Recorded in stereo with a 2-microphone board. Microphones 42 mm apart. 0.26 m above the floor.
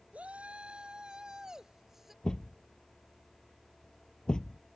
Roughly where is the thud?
Centre.